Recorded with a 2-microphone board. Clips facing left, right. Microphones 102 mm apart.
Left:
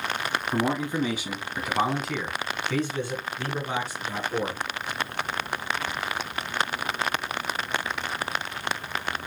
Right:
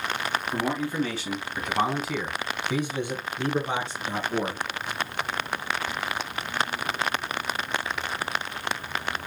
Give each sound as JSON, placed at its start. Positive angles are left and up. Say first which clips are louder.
{"t": 0.5, "sound": "a man speaking", "louder": "left 3 dB", "side_deg": 20, "distance_m": 1.3}